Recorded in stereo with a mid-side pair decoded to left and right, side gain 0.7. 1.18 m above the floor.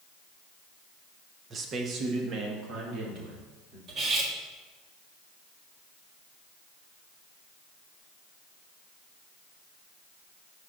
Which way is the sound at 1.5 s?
35° right.